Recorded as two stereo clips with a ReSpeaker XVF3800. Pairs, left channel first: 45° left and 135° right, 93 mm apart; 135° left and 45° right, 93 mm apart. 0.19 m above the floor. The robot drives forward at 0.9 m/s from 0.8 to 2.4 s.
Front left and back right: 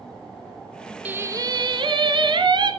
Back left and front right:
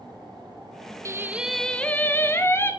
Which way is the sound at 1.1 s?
70° right.